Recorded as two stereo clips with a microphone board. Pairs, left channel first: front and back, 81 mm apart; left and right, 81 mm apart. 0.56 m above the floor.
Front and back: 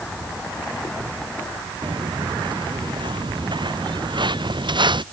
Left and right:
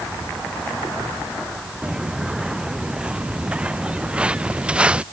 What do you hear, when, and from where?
1.8 s footsteps: 170° right; by 5.0 s 165° right